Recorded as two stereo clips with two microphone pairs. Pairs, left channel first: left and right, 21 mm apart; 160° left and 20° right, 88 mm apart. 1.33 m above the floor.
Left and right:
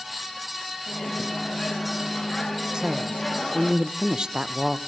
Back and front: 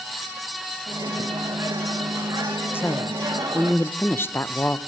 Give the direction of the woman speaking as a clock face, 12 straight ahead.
5 o'clock.